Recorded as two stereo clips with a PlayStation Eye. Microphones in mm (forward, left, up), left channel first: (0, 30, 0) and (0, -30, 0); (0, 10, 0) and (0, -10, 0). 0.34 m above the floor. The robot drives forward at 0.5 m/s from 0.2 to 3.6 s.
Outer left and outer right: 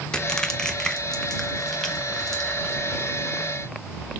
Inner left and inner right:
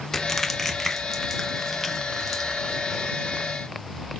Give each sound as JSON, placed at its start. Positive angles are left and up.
{"t": 0.1, "sound": "crushing", "side_deg": 15, "distance_m": 0.6}